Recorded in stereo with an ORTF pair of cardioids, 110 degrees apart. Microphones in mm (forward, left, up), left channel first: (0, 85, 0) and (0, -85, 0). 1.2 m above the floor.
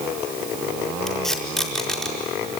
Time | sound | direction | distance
1.1 | tape being pulled | straight ahead | 4.5 m